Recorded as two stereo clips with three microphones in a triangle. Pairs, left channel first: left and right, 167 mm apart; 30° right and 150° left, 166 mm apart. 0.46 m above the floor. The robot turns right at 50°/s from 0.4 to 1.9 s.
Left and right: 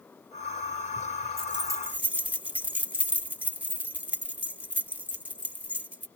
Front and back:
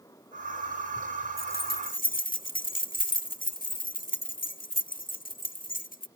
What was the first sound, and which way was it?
Keys jangling, 35° right.